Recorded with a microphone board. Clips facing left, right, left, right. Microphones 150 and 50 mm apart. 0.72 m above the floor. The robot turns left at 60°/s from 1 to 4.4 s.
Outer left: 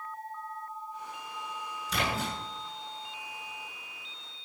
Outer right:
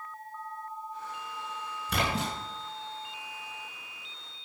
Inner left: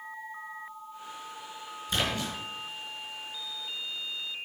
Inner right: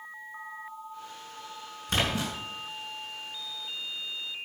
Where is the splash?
50° right (ahead or behind), 5 m; by 2.3 s 75° right (ahead or behind), 5 m.